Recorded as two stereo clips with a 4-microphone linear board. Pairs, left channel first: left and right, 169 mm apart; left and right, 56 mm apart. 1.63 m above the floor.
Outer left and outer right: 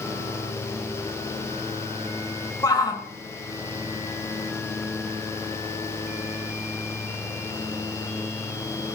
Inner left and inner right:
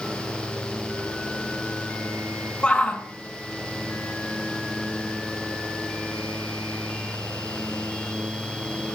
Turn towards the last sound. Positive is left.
turn(degrees=25)  # may be behind; listen again after turning